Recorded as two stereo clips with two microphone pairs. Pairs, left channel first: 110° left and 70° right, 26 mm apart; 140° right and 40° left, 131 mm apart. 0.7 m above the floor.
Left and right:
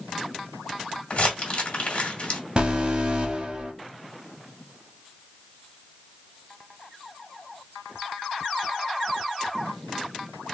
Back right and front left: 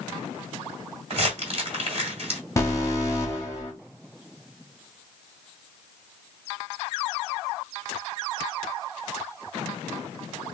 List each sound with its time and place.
1.1 s crumpling: 75° left, 1.7 m
2.6 s an alarm: 85° right, 1.4 m